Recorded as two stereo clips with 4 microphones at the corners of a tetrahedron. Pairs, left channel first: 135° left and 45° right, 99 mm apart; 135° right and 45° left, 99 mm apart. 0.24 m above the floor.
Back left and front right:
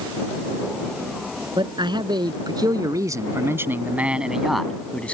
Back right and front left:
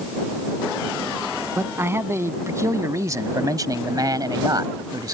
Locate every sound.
1.6 s a man speaking: 20° right; by 5.1 s 65° left